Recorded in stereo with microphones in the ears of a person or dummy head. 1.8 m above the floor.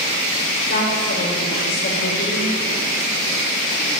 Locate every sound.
0.7 s a woman speaking: 45° left (ahead or behind), 8 m